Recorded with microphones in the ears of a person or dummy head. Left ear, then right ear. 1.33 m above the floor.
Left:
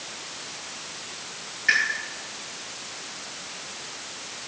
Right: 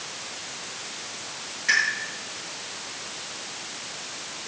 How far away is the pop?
About 6.5 m.